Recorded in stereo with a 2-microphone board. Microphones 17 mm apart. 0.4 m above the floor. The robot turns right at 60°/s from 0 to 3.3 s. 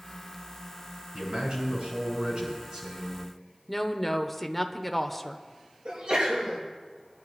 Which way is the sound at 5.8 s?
80° right.